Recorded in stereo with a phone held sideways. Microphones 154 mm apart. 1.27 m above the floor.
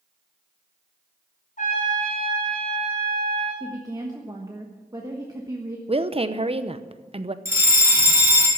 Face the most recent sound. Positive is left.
turn(degrees=-15)  # may be behind; listen again after turning